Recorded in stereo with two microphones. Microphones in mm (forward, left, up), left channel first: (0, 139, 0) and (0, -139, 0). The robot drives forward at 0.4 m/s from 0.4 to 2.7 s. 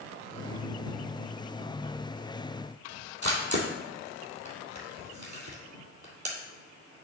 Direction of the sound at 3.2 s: 85° right.